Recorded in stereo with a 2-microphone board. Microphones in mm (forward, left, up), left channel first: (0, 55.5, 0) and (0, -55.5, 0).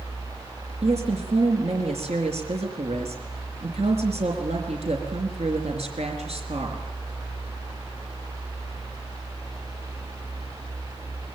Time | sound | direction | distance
0.8 | a woman speaking | 70° right (ahead or behind) | 4 m